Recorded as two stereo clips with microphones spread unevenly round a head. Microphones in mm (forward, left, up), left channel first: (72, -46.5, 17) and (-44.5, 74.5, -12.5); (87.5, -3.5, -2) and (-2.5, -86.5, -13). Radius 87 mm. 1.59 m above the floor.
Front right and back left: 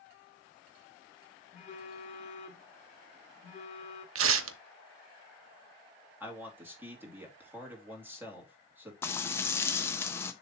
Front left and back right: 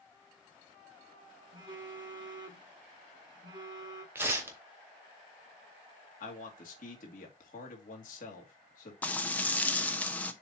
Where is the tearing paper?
145° left, 0.7 m.